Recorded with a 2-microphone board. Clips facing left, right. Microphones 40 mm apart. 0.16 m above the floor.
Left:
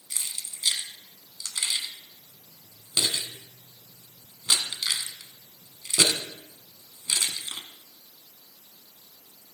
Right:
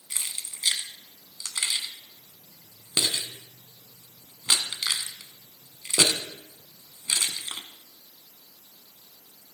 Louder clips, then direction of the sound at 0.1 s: Right 1 dB; 25° right (ahead or behind).